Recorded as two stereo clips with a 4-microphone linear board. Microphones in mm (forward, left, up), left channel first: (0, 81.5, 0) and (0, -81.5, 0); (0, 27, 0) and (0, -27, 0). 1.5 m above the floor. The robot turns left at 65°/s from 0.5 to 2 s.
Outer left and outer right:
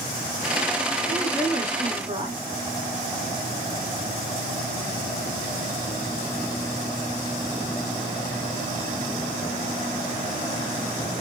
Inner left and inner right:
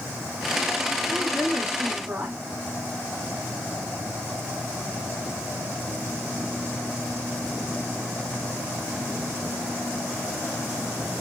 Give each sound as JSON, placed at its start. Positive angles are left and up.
{"t": 1.0, "sound": "a woman speaking", "azimuth_deg": 25, "distance_m": 4.0}